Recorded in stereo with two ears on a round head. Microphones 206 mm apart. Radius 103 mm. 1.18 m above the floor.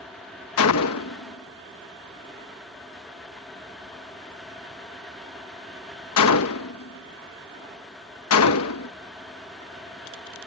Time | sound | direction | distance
0.6 | a gunshot | 70° left (ahead or behind) | ?